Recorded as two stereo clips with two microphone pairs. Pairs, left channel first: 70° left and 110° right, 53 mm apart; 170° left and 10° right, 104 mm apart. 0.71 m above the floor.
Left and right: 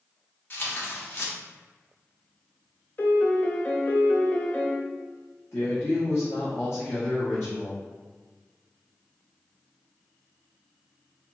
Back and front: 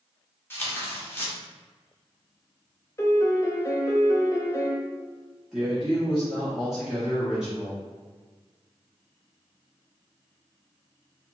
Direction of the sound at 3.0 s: 115° left.